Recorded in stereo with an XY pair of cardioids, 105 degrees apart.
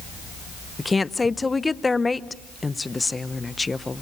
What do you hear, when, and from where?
0.8 s a woman speaking: 20° left, 0.9 m